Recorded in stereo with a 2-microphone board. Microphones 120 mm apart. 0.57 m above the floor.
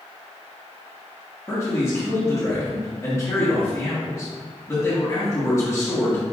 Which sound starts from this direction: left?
A man speaking, at 1.5 s.